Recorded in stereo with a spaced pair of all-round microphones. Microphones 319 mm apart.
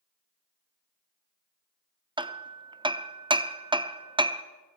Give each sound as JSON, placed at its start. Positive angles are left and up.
{"t": 2.2, "sound": "hammering", "side_deg": -15, "distance_m": 0.6}